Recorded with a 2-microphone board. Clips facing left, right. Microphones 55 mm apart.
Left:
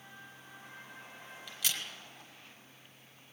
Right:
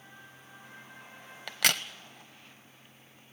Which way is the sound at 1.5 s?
75° right (ahead or behind).